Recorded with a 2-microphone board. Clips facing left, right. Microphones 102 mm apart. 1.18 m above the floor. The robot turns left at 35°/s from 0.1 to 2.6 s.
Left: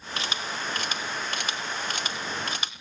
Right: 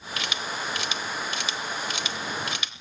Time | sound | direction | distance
0.2 | a camera shutter | 30° left (ahead or behind) | 1.2 m